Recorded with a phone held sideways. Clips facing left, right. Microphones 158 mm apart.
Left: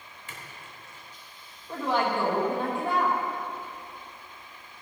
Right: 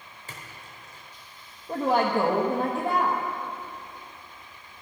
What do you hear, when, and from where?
0.3 s a splash: 35° right (ahead or behind), 2.5 m
1.7 s a woman speaking: 40° right (ahead or behind), 1.3 m